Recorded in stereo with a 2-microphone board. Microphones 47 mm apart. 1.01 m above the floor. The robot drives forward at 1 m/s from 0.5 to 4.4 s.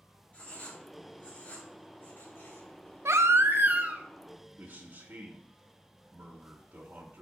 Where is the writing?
30° left (ahead or behind), 4 m; by 2.8 s 60° left (ahead or behind), 2.5 m.